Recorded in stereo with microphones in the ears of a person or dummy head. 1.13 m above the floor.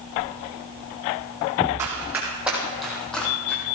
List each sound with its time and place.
1.8 s running footsteps: 20° right (ahead or behind), 3 m; by 3.6 s centre (ahead or behind), 3 m